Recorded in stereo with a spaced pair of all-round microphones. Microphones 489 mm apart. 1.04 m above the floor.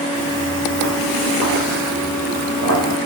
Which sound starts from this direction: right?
Footsteps, at 0.1 s.